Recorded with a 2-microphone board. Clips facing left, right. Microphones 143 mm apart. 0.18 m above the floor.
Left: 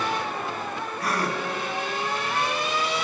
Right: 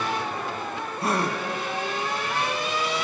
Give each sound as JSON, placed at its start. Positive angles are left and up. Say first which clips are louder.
{"t": 1.0, "sound": "a gasp", "louder": "right 2 dB", "side_deg": -25, "distance_m": 0.6}